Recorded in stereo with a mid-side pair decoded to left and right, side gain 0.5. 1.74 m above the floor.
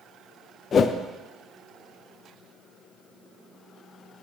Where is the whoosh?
50° left, 0.6 m.